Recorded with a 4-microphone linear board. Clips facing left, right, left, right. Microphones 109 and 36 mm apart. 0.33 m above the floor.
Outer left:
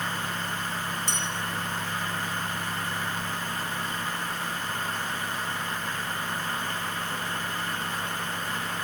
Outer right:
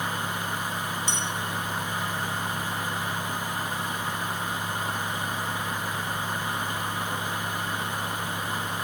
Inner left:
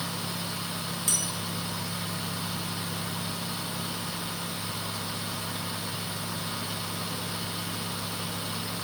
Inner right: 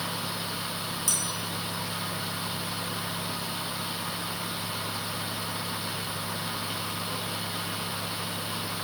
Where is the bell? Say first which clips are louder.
Outer right 1 dB, inner left 1 dB; 50° left (ahead or behind), 6 m.